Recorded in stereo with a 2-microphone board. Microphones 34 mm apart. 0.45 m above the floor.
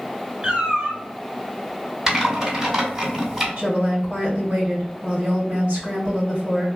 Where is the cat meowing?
30° right (ahead or behind), 1.2 m.